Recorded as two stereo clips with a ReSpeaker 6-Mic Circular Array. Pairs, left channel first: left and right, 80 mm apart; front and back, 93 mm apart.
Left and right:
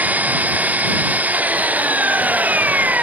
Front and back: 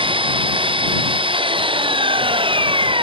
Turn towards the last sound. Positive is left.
turn(degrees=-160)